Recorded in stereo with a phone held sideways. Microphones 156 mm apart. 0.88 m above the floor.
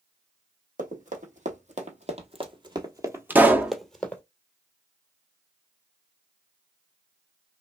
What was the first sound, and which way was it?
Running footsteps, 55° right (ahead or behind).